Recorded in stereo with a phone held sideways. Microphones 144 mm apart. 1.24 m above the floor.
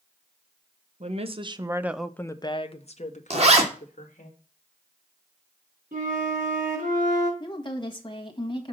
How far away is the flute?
About 4 m.